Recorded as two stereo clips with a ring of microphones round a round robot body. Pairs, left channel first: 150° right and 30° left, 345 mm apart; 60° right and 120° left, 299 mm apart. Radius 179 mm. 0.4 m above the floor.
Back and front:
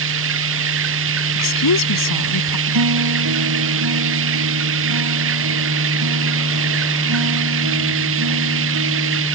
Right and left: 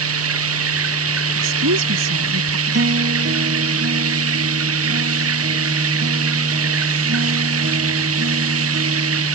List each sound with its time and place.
0.0 s running water: 85° left
1.4 s a woman speaking: 170° left
2.7 s a guitar: 70° left